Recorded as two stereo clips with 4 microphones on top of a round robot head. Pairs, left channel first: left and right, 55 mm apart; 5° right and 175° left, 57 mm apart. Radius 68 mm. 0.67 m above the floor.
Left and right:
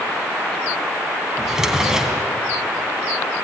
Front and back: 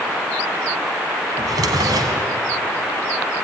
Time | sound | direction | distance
1.4 | a drawer | 170° right | 3 m